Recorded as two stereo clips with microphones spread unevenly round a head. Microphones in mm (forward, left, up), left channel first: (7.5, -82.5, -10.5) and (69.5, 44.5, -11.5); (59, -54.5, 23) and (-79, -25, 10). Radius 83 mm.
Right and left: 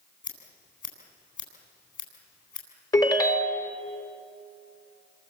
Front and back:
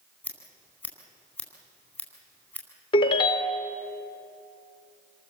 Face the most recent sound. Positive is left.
turn(degrees=-55)